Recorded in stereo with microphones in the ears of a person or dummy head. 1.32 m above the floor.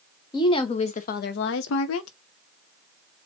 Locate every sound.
0.3 s a woman speaking: 20° left (ahead or behind), 0.9 m; by 2.1 s 85° left, 0.6 m